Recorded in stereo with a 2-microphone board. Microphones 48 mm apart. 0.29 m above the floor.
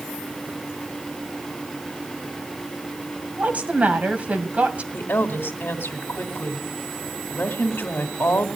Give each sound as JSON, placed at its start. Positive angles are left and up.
{"t": 3.4, "sound": "a woman speaking", "side_deg": -30, "distance_m": 2.0}
{"t": 4.9, "sound": "a woman speaking", "side_deg": 45, "distance_m": 2.0}